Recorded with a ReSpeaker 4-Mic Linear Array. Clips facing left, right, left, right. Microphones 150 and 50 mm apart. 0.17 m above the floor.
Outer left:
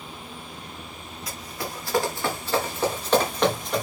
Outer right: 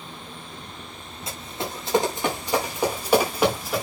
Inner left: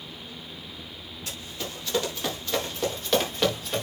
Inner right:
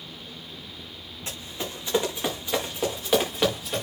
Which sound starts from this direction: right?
Running footsteps, at 1.3 s.